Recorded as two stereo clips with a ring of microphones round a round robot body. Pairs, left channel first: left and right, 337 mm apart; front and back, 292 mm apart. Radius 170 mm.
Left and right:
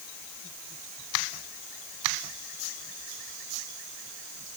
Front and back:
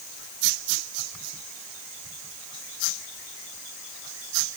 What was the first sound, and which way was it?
Only background noise.